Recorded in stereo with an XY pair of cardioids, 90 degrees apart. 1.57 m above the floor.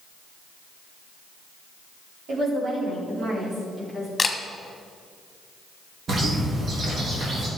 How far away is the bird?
About 3 m.